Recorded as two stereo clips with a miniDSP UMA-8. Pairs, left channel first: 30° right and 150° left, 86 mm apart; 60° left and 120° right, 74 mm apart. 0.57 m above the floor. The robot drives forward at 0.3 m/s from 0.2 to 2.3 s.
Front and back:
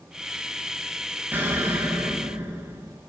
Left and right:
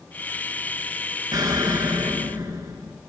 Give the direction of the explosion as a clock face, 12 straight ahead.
5 o'clock.